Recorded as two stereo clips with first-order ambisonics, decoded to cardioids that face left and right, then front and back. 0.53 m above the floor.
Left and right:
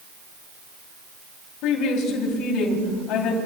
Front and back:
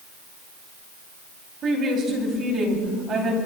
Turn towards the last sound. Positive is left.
turn(degrees=120)